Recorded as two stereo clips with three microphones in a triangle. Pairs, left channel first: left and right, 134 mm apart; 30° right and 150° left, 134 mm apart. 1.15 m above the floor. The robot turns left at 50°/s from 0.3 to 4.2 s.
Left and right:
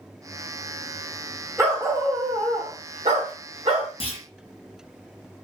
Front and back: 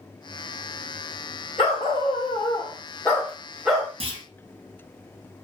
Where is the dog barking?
25° right, 1.2 m; by 3.9 s 140° right, 1.2 m.